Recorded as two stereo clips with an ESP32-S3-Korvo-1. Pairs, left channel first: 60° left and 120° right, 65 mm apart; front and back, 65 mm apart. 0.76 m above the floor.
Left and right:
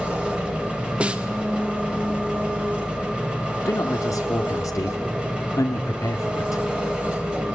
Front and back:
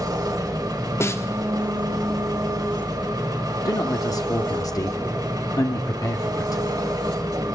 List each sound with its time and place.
0.0 s an engine running: 165° left, 3 m
1.0 s a snare drum: 50° right, 1.4 m
3.6 s a man speaking: 25° left, 1.3 m